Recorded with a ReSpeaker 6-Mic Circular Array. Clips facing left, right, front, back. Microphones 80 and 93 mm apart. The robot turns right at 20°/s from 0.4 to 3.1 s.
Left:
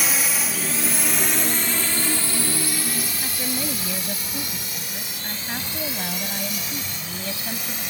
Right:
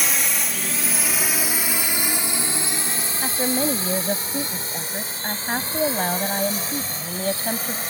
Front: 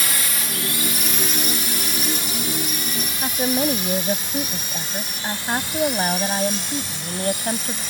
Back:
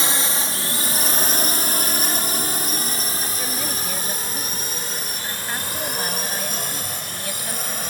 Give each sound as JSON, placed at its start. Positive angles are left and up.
{"t": 0.0, "sound": "a drone", "azimuth_deg": 175}
{"t": 3.2, "sound": "a woman speaking", "azimuth_deg": -45}